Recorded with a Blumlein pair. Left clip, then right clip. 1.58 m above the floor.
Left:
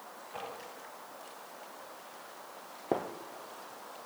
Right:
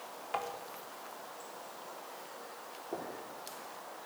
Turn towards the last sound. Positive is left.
turn(degrees=45)